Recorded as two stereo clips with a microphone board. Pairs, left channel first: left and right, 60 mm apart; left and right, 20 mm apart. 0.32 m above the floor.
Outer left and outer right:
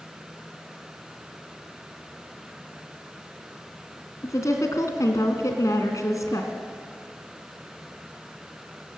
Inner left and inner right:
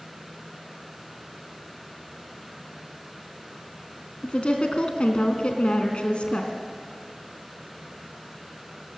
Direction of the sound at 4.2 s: 65° left (ahead or behind).